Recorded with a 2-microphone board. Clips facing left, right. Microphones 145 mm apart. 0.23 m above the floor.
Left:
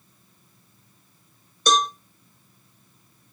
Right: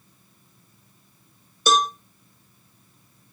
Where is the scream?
No scream in this recording.